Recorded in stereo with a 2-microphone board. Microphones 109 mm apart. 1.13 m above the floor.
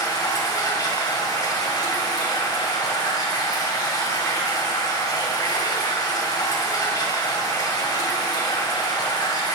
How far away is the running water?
About 1.9 m.